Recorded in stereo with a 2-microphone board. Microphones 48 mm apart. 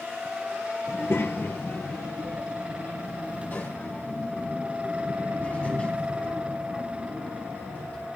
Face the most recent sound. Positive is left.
turn(degrees=30)  # may be behind; listen again after turning